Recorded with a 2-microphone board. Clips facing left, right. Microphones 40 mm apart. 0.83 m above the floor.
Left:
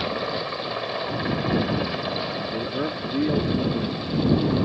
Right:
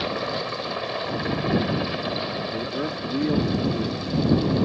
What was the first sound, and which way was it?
A helicopter, centre (ahead or behind).